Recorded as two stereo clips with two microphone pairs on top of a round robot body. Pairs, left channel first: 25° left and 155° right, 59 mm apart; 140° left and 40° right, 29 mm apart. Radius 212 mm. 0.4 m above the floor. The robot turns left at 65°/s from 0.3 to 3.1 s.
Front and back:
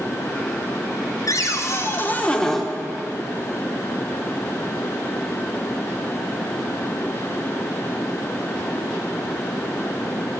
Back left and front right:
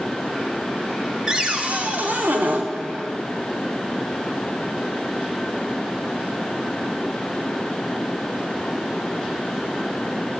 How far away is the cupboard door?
About 1.5 m.